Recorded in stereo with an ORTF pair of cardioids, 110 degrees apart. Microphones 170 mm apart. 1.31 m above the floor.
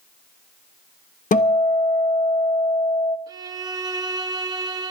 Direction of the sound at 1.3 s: 50° left.